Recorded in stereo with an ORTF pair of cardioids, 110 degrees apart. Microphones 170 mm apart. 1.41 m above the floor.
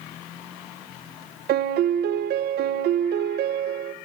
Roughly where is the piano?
Right.